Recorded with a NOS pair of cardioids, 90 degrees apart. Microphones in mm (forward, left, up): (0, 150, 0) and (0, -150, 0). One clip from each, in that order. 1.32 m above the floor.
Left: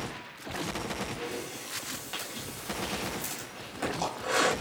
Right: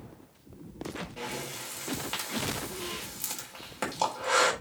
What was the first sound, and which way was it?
Breathing, 35° right.